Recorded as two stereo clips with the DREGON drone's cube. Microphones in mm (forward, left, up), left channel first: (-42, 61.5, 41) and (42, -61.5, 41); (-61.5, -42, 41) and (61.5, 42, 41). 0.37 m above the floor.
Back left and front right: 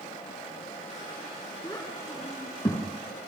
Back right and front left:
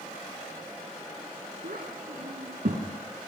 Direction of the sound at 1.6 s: 55° left.